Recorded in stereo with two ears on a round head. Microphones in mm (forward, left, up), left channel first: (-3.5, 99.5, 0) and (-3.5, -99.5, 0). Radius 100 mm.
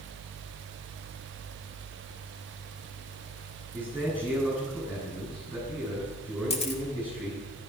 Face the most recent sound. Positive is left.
turn(degrees=30)  # may be behind; listen again after turning